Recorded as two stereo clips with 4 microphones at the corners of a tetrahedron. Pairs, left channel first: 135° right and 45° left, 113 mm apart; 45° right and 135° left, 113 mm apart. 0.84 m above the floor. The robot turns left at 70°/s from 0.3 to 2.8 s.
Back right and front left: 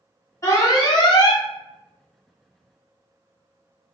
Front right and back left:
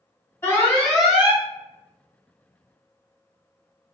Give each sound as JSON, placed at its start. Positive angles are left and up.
{"t": 0.4, "sound": "an alarm", "azimuth_deg": -95, "distance_m": 0.9}